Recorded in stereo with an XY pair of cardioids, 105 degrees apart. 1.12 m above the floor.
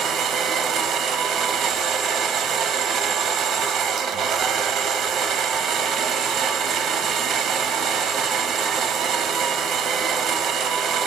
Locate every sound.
0.0 s a machine running: 65° right, 0.8 m